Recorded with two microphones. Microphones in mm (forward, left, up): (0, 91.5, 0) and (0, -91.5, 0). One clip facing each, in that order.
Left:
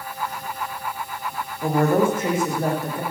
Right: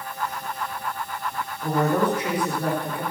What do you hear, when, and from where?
1.6 s a woman speaking: 50° left (ahead or behind), 6 m; by 3.0 s 45° left (ahead or behind), 6.5 m